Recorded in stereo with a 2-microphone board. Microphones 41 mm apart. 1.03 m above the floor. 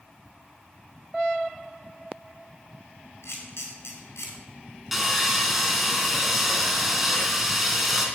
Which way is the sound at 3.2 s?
85° left.